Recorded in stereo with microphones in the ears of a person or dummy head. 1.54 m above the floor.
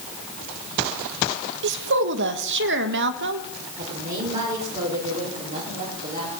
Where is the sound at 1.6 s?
65° right (ahead or behind), 1.5 m.